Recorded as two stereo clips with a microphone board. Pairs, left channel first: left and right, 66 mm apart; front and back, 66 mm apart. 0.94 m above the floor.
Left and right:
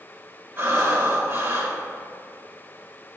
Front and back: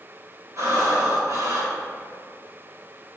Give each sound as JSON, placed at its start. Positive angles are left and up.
{"t": 0.6, "sound": "breathing", "azimuth_deg": -145, "distance_m": 2.5}